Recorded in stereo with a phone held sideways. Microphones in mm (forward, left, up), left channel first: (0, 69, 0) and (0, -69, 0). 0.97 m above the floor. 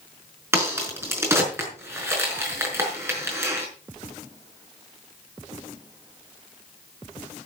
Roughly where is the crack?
Centre.